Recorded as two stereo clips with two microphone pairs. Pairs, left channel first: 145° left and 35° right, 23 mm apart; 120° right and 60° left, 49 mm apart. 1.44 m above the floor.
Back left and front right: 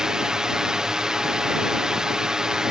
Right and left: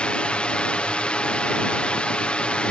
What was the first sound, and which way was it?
A drone, 70° right.